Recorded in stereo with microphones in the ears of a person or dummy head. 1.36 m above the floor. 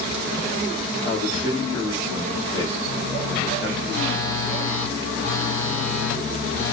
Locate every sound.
1.0 s a man speaking: 35° right (ahead or behind), 2 m; by 3.8 s 25° right (ahead or behind), 4 m
3.9 s a phone buzzing: 55° right (ahead or behind), 3 m